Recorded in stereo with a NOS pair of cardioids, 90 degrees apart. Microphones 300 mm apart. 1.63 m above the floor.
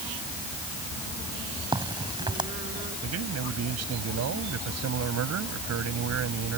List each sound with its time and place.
1.7 s a crack: 15° right
3.0 s a man speaking: 60° right